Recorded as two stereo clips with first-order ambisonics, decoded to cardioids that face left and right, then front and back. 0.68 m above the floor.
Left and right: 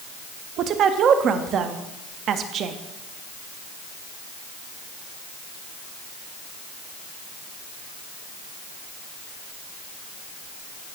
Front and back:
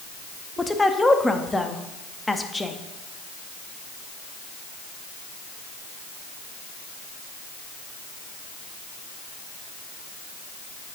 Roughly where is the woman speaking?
Right.